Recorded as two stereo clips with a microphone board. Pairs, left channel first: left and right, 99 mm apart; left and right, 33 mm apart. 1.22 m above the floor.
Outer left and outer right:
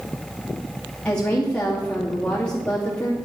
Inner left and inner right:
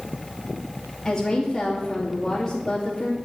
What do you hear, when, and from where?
1.1 s a woman speaking: 10° left (ahead or behind), 2.5 m